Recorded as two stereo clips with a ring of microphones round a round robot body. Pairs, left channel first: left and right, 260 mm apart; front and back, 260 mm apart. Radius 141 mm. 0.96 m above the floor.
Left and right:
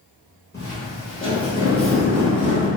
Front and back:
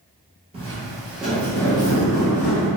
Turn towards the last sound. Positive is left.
turn(degrees=30)